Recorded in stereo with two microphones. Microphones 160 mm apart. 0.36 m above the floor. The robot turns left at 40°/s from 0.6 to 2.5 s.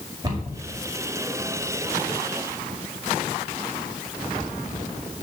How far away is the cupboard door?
About 1.9 m.